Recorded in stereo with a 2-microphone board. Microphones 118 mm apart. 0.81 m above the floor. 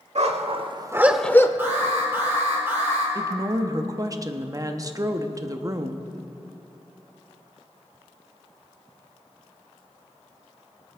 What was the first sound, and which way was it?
A dog barking, 65° right (ahead or behind).